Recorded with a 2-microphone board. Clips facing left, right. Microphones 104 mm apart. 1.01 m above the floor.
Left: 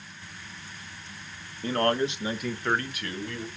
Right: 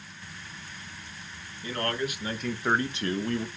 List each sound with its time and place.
1.6 s a man speaking: 45° left (ahead or behind), 0.8 m; by 3.5 s 50° right (ahead or behind), 0.8 m